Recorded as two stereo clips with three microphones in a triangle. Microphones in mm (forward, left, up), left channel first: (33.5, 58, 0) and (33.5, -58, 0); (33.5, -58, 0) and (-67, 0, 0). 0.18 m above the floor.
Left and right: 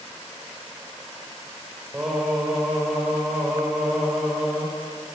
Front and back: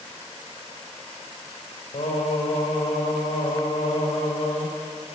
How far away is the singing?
About 3.5 m.